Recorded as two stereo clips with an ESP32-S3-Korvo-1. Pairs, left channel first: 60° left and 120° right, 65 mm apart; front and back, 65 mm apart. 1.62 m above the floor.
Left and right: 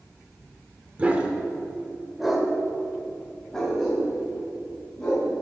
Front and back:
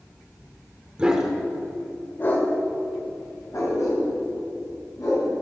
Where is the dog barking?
135° right, 1.3 m; by 5.3 s 20° right, 5 m.